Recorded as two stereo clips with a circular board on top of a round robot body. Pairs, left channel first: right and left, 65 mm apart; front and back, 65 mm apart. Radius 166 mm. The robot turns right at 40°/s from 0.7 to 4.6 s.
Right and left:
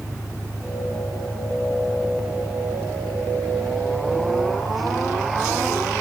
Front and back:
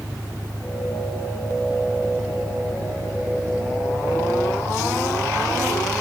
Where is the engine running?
95° right; by 6.0 s 60° left.